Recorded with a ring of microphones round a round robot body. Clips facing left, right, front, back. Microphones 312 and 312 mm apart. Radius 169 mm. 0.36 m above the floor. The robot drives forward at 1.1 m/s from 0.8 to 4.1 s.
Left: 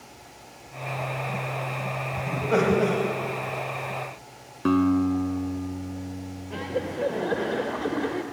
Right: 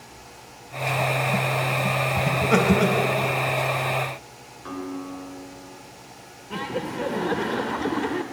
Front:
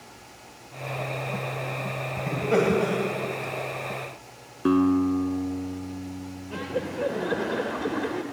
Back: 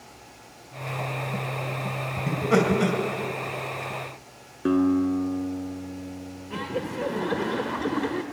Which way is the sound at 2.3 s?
115° right.